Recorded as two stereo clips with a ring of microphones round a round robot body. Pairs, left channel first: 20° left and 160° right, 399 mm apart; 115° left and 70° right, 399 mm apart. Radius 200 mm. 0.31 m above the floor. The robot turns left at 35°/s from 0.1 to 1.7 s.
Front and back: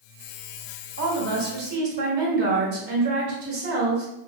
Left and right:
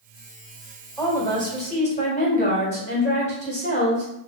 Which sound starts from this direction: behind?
A woman speaking, at 1.0 s.